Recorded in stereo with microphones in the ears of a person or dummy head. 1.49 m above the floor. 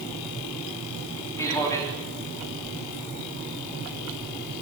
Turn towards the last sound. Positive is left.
turn(degrees=15)  # may be behind; listen again after turning